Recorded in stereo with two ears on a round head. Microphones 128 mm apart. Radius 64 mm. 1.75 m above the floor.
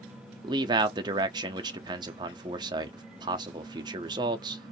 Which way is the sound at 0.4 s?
30° right (ahead or behind).